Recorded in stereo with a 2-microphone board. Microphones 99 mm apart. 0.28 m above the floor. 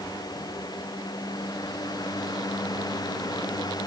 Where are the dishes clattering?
I don't hear dishes clattering.